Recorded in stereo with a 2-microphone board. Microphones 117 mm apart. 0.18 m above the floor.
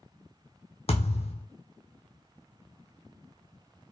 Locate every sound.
0.9 s a thud: 60° left (ahead or behind), 0.9 m